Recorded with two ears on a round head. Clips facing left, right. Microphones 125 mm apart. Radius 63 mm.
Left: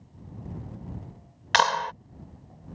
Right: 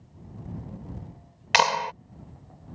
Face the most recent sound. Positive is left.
turn(degrees=-15)  # may be behind; listen again after turning